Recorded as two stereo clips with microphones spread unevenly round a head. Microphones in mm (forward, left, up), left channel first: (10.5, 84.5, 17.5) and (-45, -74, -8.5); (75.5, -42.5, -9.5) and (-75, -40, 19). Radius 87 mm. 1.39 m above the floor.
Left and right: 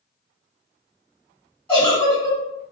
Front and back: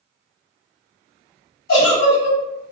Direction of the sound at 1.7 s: 5° right.